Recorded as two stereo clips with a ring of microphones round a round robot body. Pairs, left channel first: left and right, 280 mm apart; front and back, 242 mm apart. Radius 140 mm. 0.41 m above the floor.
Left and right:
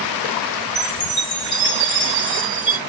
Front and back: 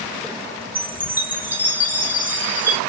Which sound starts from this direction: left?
A chime, at 0.8 s.